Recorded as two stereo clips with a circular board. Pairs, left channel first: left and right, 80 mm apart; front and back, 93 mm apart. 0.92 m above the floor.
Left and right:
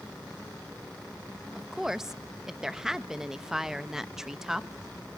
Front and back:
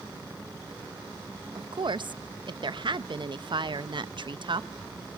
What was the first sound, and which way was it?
A woman speaking, 175° right.